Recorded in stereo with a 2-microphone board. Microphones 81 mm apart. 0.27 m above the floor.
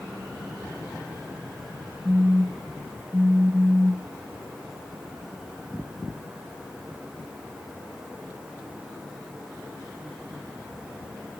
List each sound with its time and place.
2.0 s a phone buzzing: 15° right (ahead or behind), 0.7 m